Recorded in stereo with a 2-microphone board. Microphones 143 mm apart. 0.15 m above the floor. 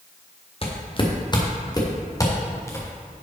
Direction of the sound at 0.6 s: 40° left (ahead or behind).